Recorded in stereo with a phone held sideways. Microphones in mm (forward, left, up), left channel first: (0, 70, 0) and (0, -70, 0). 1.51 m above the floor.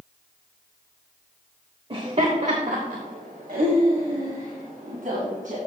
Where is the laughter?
40° right (ahead or behind), 0.9 m; by 5.6 s 70° right (ahead or behind), 2 m.